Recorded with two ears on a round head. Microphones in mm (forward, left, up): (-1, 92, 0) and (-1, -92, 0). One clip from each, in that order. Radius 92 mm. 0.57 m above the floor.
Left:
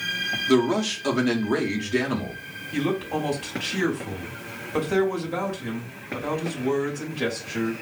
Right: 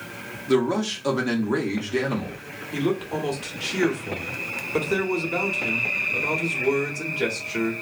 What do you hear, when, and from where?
0.5 s a man speaking: 10° left (ahead or behind), 0.6 m
2.7 s a man speaking: 20° right (ahead or behind), 0.9 m